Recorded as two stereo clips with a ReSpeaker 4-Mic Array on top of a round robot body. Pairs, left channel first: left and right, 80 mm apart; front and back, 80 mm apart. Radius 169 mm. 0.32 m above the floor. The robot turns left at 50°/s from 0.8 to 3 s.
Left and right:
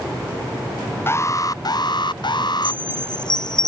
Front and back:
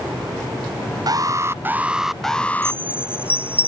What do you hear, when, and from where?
1.1 s an alarm: 145° left; by 2.8 s 60° left
2.6 s a chime: 85° left; by 3.7 s 65° left